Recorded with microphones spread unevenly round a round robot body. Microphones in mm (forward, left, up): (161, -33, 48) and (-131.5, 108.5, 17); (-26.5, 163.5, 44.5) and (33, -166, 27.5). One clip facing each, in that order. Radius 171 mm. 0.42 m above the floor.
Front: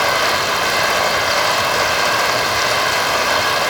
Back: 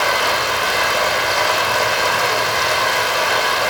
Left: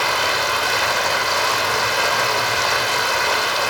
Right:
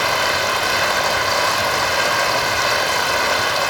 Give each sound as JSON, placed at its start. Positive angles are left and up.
{"t": 0.0, "sound": "running water", "azimuth_deg": -60, "distance_m": 9.5}